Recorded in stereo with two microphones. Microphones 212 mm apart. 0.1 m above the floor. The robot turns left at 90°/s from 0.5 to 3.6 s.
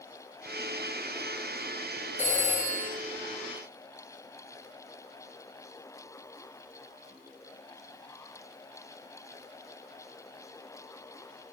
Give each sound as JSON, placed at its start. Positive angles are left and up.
{"t": 2.2, "sound": "a phone ringing", "azimuth_deg": 145, "distance_m": 1.9}